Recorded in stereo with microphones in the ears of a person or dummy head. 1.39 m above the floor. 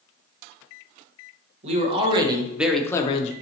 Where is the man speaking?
35° right (ahead or behind), 1.0 m; by 3.3 s 50° left (ahead or behind), 0.5 m.